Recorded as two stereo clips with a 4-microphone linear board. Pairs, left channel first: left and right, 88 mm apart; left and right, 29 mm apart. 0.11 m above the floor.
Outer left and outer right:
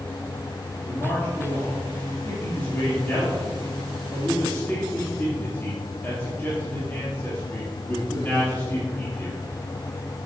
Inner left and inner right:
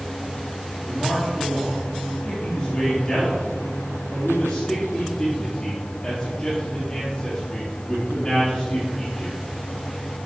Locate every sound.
0.8 s a man speaking: 20° left (ahead or behind), 2.5 m